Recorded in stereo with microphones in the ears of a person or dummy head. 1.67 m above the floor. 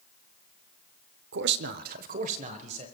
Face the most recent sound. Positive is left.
turn(degrees=-40)  # may be behind; listen again after turning